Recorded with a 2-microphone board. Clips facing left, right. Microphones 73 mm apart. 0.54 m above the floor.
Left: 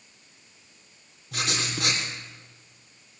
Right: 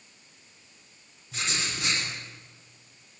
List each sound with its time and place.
1.3 s writing: 65° left (ahead or behind), 6.5 m